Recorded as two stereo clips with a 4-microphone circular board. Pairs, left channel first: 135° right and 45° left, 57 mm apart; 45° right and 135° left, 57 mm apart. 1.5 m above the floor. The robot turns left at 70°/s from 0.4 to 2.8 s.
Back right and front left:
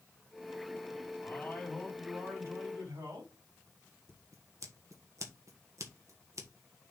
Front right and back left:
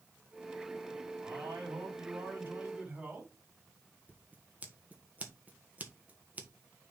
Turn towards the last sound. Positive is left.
turn(degrees=75)